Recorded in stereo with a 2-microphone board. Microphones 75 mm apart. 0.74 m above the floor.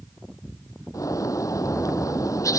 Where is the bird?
45° left (ahead or behind).